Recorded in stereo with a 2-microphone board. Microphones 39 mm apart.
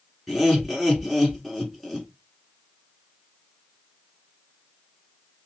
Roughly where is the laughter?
Centre.